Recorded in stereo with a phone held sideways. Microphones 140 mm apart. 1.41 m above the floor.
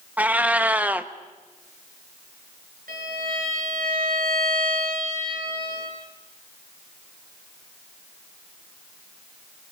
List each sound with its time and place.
0.2 s a cat meowing: 10° right (ahead or behind), 0.9 m
2.9 s a violin: 80° right, 8.5 m